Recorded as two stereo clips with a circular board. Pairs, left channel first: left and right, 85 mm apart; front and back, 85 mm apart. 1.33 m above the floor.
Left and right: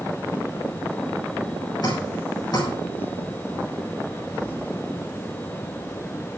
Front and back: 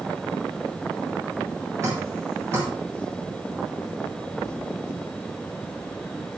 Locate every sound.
1.8 s dripping: 125° left, 8.5 m